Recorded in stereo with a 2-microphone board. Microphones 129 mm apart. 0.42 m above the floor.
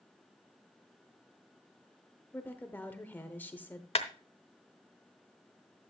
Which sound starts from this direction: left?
A clap, at 4.0 s.